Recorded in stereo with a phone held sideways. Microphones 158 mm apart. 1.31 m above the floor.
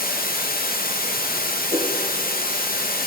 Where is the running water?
70° left (ahead or behind), 0.9 m.